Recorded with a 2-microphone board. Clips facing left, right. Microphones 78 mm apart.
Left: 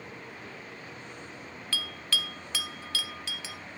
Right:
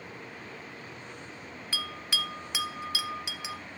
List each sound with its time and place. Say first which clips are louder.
1.7 s a bell: even; 15° right (ahead or behind), 0.8 m